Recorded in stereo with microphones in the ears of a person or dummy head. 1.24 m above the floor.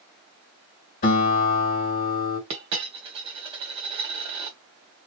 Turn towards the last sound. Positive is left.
turn(degrees=-25)  # may be behind; listen again after turning